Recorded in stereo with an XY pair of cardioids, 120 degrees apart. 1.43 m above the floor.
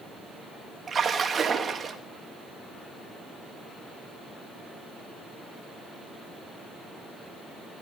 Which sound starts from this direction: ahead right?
A splash, at 0.9 s.